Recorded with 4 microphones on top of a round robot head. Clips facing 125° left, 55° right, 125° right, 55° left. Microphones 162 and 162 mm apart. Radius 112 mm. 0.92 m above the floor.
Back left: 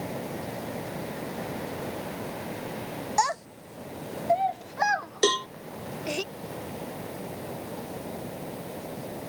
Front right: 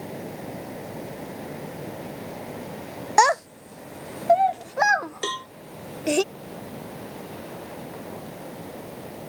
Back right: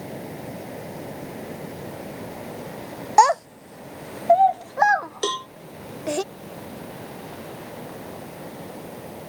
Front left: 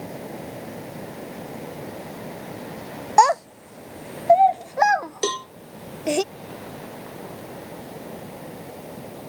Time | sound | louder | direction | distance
3.2 | a child speaking | front right 9 dB, even | 40° right | ?
5.2 | a cowbell | back left 8 dB, front left 1 dB | 130° left | ?